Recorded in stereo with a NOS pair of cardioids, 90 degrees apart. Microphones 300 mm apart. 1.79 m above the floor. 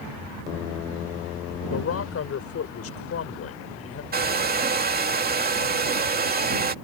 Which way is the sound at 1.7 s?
50° left.